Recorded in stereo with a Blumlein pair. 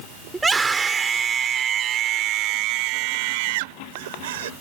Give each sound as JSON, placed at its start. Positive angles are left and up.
{"t": 0.3, "sound": "a scream", "azimuth_deg": -10}